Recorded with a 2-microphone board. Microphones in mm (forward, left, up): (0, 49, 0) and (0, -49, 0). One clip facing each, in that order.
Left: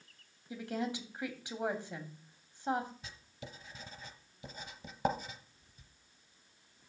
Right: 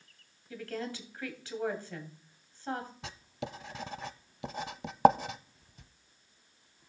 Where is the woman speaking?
20° left (ahead or behind), 2.5 m.